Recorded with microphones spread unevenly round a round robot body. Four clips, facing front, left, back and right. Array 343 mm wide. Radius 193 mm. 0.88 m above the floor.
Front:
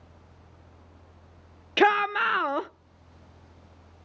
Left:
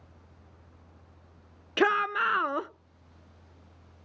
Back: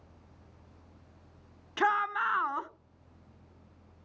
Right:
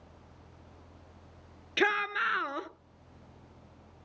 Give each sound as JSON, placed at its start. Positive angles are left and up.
{"t": 1.8, "sound": "a shout", "azimuth_deg": 15, "distance_m": 0.6}